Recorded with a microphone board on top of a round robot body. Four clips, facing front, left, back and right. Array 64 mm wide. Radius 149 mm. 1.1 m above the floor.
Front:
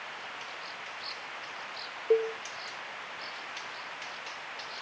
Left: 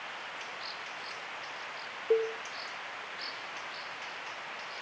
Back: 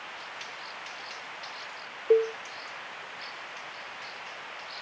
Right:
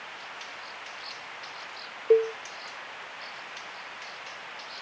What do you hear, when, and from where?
2.1 s a cowbell: 110° right, 0.8 m